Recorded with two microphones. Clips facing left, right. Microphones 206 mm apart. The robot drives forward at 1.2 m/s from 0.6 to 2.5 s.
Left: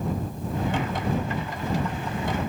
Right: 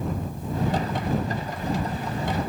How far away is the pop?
I don't hear a pop.